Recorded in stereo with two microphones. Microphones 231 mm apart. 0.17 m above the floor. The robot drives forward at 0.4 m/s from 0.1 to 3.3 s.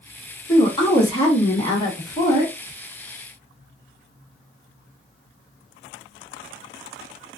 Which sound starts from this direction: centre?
A woman speaking, at 0.5 s.